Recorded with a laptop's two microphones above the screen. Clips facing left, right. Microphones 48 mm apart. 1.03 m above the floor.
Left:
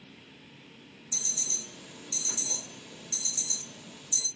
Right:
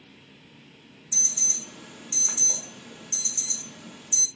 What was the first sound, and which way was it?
An alarm, 55° right (ahead or behind).